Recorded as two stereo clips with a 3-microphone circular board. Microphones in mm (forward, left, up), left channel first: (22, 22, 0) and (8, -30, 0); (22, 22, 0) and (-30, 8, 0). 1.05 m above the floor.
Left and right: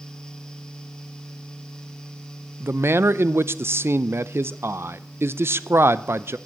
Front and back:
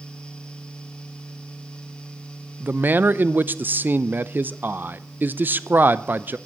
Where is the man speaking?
125° right, 0.5 m.